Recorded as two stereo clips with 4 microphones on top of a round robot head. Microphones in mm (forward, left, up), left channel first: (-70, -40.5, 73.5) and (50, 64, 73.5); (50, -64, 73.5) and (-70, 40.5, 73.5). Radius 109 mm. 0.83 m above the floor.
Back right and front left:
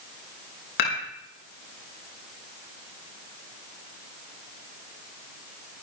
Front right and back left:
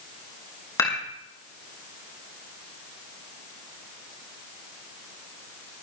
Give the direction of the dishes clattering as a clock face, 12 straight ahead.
4 o'clock.